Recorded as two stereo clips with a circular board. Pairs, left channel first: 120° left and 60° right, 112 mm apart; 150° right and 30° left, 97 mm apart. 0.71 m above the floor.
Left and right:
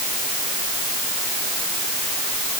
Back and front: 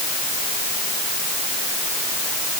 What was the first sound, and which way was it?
Only background noise.